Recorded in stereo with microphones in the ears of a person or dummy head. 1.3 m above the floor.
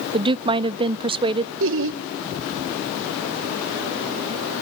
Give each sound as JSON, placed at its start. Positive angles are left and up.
{"t": 0.1, "sound": "a woman speaking", "side_deg": -25, "distance_m": 0.6}
{"t": 1.6, "sound": "laughter", "side_deg": -60, "distance_m": 1.6}